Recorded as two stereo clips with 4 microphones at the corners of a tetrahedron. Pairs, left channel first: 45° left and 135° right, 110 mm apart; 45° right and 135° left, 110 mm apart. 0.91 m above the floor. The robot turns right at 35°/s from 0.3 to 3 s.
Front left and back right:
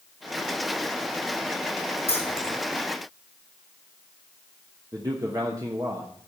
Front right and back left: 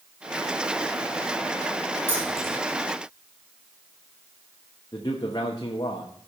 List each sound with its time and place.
2.1 s keys jangling: 25° left, 4.5 m; by 2.5 s 40° left, 4.5 m
4.9 s a man speaking: 80° right, 1.0 m